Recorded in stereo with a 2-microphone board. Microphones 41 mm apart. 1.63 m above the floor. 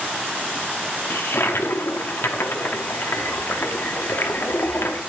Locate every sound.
1.1 s a toilet flushing: 70° left (ahead or behind), 0.7 m